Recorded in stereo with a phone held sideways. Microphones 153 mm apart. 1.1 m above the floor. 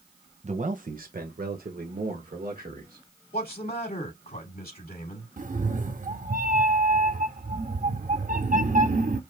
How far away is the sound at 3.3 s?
About 3 m.